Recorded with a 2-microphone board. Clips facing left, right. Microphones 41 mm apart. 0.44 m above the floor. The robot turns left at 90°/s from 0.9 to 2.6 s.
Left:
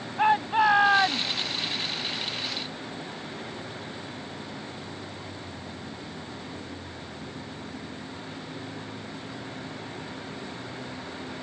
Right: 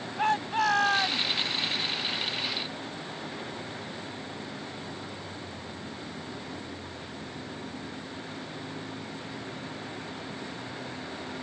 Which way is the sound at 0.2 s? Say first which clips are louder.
Left 5 dB; 160° left.